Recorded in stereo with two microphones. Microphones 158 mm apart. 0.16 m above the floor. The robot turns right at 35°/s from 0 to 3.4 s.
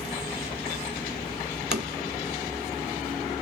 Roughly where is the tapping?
Right.